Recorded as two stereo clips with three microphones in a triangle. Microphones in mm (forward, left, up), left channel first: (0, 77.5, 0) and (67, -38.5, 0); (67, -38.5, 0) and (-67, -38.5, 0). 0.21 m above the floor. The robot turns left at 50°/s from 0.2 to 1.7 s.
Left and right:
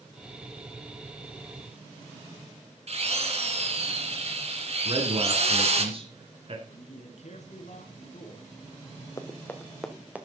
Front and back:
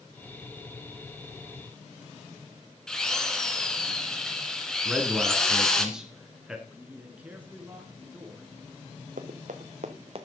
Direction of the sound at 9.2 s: 175° right.